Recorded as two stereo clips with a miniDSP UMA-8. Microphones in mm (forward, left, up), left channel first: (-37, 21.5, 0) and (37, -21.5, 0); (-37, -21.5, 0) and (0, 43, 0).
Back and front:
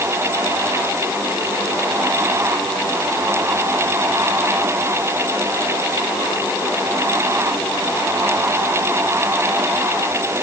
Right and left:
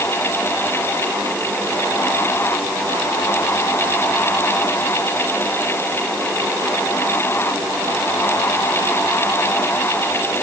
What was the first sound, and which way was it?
Only background noise.